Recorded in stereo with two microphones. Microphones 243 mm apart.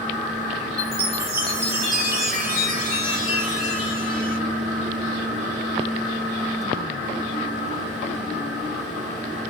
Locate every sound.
0.8 s a chime: 40° right (ahead or behind), 2 m